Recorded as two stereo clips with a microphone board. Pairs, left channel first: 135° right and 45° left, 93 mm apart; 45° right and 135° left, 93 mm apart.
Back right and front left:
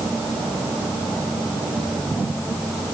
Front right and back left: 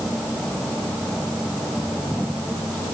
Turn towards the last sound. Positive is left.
No sound to turn to.